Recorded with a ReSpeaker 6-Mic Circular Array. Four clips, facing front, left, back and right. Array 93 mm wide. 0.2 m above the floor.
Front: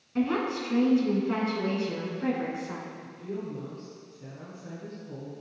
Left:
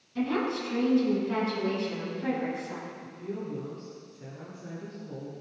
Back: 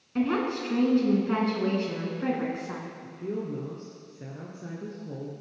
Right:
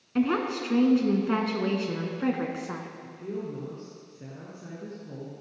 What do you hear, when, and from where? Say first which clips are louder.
0.1 s a woman speaking: right 3 dB, back 1 dB; 105° right, 1.8 m
3.0 s a woman speaking: right 2 dB, back 5 dB; 170° right, 2.5 m